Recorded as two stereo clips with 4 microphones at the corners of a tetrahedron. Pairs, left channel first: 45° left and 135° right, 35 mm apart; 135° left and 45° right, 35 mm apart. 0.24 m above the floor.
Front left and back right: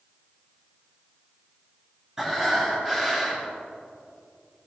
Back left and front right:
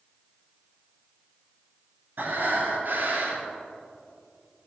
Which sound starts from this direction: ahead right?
Breathing, at 2.2 s.